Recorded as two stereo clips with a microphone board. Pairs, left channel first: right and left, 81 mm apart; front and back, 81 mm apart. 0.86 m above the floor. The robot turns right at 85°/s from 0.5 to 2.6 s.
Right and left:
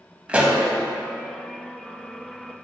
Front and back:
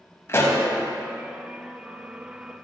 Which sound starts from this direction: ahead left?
A pop, at 0.3 s.